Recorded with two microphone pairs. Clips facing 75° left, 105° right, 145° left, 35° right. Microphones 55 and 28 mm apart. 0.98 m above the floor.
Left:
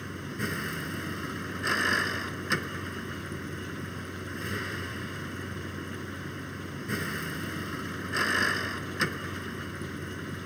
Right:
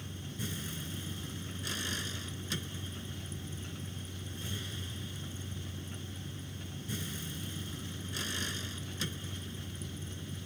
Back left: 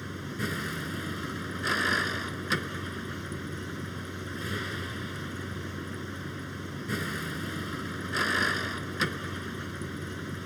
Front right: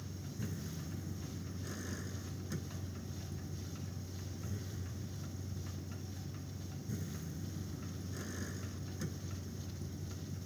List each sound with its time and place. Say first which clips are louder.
0.0 s a vehicle: left 8 dB, back left 11 dB; 115° left